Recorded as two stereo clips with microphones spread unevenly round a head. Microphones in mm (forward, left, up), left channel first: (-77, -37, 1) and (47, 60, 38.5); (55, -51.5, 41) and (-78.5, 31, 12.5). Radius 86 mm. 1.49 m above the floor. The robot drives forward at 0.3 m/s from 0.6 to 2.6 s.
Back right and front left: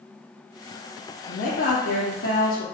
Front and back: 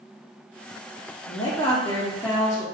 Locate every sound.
1.3 s a woman speaking: 90° right, 0.5 m; by 2.6 s 130° right, 0.7 m